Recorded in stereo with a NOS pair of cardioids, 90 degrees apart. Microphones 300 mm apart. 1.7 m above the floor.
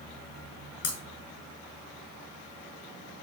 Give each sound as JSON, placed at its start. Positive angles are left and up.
{"t": 0.8, "sound": "breaking glass", "azimuth_deg": 55, "distance_m": 6.5}